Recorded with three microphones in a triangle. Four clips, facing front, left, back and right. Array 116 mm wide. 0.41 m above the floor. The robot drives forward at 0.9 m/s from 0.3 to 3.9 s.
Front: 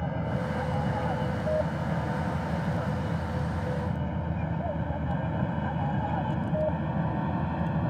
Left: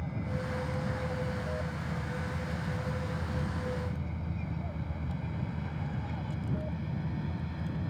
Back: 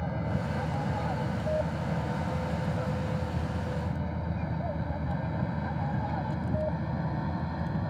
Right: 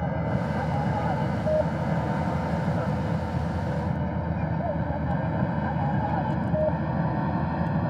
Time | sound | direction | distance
0.0 | an aircraft | 85° right | ?